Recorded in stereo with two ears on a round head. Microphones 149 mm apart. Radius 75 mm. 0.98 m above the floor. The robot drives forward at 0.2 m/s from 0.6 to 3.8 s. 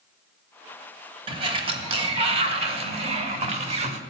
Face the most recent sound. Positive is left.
turn(degrees=-40)  # may be behind; listen again after turning